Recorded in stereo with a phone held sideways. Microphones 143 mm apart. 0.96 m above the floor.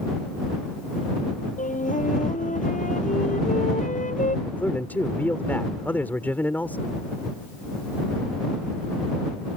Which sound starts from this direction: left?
A flute, at 1.6 s.